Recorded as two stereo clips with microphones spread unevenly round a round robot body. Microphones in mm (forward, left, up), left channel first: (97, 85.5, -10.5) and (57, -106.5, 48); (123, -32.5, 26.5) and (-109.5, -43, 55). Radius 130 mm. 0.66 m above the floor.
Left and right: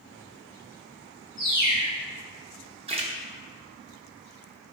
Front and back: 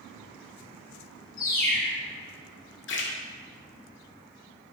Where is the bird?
25° right, 1.6 m.